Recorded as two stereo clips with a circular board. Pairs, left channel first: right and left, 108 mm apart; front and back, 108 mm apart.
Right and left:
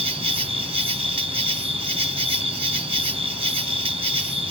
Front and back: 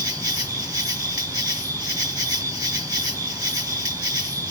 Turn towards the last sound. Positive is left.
turn(degrees=125)